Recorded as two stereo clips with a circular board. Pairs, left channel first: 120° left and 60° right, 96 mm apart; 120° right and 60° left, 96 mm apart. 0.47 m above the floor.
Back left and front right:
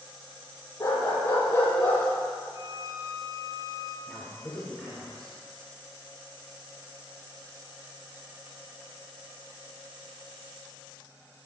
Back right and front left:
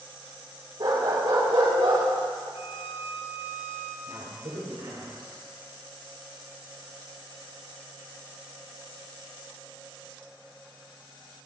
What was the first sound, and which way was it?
A dog barking, 70° left.